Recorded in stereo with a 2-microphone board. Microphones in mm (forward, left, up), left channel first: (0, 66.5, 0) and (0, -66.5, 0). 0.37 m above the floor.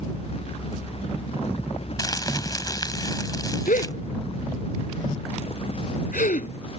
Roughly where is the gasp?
Left.